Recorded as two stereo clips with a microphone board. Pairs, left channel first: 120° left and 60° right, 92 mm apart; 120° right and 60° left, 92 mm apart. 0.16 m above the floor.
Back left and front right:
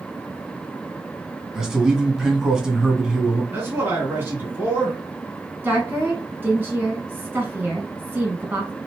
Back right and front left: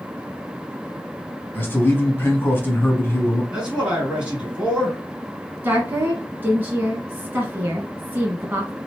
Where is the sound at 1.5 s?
130° right, 1.2 m.